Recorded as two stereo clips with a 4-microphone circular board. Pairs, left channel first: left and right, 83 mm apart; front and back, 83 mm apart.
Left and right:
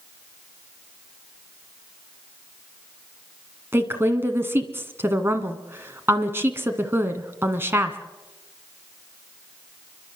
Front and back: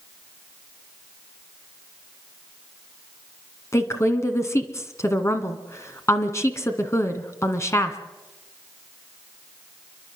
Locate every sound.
3.7 s a woman speaking: 40° right, 1.8 m